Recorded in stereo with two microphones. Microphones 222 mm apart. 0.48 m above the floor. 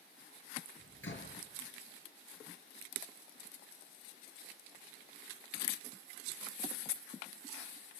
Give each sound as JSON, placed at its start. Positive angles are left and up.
{"t": 0.8, "sound": "a door slam", "side_deg": 60, "distance_m": 5.5}